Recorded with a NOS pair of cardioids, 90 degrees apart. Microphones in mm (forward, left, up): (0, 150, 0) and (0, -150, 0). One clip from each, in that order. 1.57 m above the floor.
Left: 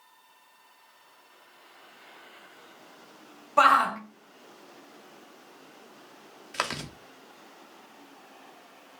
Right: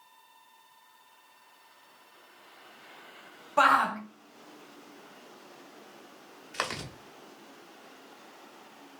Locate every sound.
3.6 s a shout: 10° left, 1.1 m
6.5 s chewing: 15° left, 0.8 m